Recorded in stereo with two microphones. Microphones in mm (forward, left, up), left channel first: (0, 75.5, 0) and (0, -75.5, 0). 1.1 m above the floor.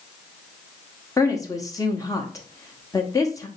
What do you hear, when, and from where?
1.2 s a woman speaking: 20° left (ahead or behind), 0.8 m